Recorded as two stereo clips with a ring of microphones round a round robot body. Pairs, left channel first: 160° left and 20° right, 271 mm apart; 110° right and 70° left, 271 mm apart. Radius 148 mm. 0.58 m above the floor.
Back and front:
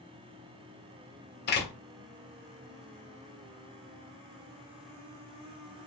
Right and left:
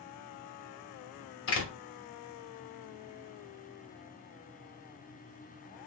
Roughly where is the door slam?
Behind right.